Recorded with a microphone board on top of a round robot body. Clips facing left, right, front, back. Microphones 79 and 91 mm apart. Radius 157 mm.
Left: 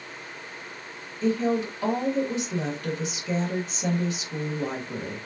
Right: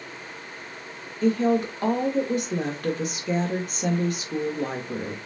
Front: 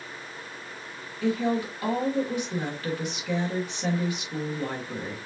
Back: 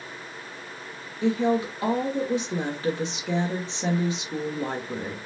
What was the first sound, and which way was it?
A woman speaking, 115° right.